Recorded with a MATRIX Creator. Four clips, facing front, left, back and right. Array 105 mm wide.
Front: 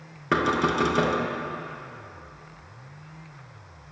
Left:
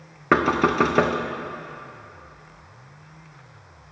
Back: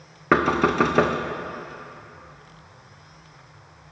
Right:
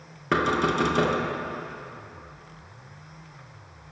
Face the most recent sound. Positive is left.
turn(degrees=130)